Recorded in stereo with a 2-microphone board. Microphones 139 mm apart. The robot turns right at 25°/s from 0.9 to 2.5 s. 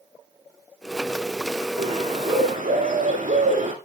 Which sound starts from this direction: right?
A bird, at 1.8 s.